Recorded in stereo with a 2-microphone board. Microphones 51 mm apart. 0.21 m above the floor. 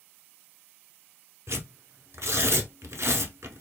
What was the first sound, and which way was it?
Tearing paper, 65° right (ahead or behind).